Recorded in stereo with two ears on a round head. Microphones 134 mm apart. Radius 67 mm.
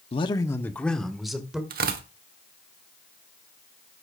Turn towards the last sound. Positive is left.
turn(degrees=-65)  # may be behind; listen again after turning